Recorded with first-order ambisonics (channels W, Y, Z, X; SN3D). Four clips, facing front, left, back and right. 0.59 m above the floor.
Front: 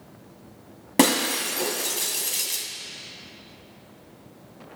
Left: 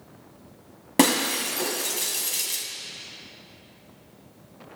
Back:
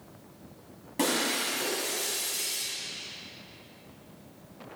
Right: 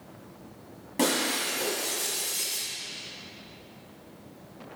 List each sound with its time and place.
1.0 s breaking glass: 45° left, 1.1 m